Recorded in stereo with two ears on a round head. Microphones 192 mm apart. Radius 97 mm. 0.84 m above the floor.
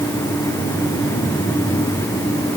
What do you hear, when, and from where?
Only background noise.